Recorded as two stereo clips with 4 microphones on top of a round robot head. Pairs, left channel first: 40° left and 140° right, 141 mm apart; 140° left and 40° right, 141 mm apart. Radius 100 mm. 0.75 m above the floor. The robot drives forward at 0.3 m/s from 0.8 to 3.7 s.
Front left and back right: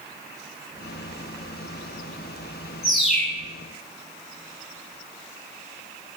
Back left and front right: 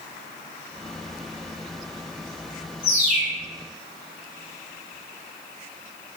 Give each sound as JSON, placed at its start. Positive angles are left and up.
{"t": 2.8, "sound": "a bird", "azimuth_deg": 130, "distance_m": 7.0}